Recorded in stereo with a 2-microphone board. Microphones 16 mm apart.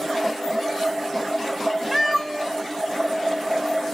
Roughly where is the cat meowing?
Centre.